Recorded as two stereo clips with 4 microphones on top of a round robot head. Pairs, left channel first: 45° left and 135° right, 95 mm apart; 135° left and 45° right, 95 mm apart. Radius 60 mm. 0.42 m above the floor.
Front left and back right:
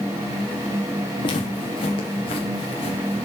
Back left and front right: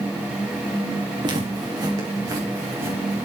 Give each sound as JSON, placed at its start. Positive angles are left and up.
{"t": 1.2, "sound": "footsteps", "azimuth_deg": 0, "distance_m": 7.5}